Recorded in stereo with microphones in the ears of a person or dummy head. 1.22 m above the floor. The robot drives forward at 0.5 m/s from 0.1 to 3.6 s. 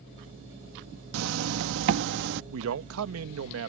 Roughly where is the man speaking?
Right.